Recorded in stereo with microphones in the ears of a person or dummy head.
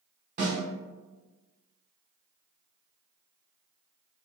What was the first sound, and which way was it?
A snare drum, 40° right (ahead or behind).